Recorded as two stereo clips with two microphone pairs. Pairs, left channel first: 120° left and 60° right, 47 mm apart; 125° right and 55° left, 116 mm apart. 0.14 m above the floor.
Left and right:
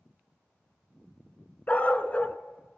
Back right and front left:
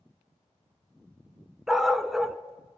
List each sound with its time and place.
1.7 s a dog barking: 145° left, 0.5 m